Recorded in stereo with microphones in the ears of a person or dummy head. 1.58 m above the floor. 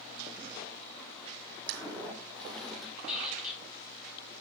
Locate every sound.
1.7 s footsteps: 10° left (ahead or behind), 3.5 m; by 2.9 s centre (ahead or behind), 3.5 m
3.1 s a squeak: centre (ahead or behind), 4.5 m